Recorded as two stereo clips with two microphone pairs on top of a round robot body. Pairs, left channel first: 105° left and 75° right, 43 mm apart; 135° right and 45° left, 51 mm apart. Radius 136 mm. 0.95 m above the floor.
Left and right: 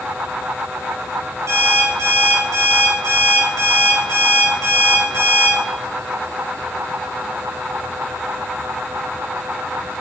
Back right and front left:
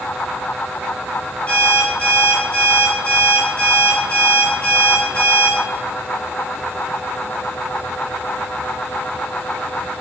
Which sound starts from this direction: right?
An alarm clock, at 1.5 s.